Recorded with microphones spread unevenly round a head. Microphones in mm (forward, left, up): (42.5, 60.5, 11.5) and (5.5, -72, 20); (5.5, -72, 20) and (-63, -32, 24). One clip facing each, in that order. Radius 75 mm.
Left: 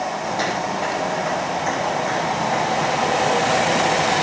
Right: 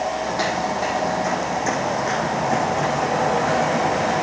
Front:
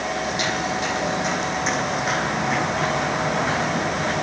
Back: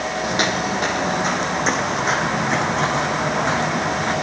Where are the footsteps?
165° left, 3 m; by 4.1 s 145° right, 6.5 m.